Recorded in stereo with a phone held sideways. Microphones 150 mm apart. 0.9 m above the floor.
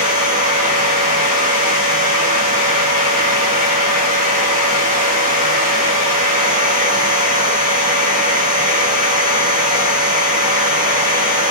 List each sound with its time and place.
0.0 s a machine running: 85° right, 2 m